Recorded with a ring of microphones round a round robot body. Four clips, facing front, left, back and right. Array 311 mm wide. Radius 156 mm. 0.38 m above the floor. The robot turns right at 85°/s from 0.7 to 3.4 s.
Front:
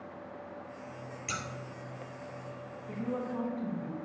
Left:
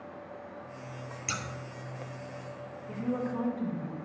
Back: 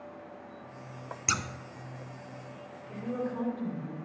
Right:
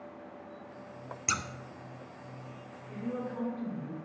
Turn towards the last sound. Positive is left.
turn(degrees=70)